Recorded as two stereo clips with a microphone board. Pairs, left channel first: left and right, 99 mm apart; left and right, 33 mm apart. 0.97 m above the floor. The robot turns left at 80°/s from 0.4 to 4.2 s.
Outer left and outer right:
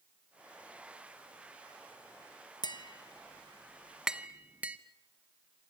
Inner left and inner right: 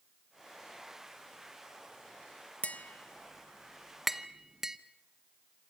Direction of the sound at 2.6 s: 50° left (ahead or behind).